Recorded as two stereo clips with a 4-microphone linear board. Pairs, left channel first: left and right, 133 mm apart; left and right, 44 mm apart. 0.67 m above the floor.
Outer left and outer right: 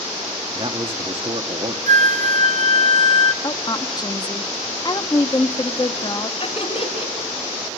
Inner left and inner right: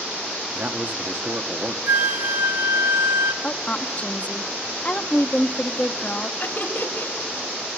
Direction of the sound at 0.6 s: 45° right (ahead or behind).